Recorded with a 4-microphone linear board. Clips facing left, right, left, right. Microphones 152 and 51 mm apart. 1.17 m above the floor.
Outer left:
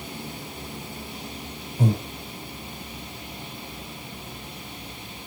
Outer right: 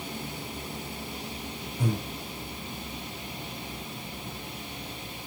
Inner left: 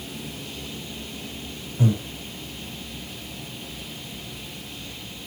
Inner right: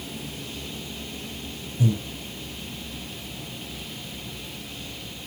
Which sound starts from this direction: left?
Breathing, at 1.8 s.